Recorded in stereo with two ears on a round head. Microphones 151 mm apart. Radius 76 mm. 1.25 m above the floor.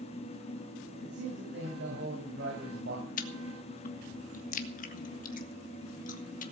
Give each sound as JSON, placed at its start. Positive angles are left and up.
{"t": 1.0, "sound": "a man speaking", "side_deg": -70, "distance_m": 6.5}
{"t": 3.2, "sound": "chewing", "side_deg": 50, "distance_m": 1.6}